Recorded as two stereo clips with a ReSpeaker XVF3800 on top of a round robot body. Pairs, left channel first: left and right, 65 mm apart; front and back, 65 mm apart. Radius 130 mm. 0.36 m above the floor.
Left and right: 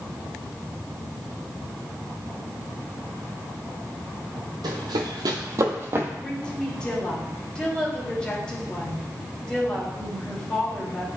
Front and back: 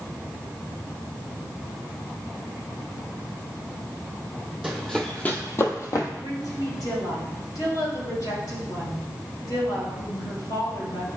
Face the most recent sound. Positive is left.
turn(degrees=15)